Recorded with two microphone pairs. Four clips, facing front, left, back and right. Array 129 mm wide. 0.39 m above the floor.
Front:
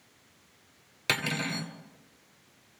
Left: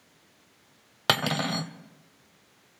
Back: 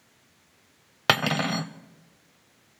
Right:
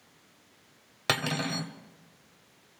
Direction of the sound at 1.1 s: 150° left.